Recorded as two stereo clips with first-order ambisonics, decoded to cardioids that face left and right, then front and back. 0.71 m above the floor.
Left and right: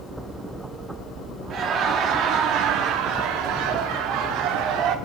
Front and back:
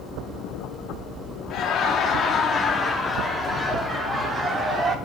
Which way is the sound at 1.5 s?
45° right.